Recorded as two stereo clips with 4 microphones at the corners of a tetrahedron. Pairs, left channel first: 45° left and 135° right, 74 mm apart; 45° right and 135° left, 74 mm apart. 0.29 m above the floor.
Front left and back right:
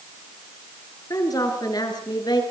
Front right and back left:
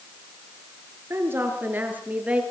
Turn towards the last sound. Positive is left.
turn(degrees=60)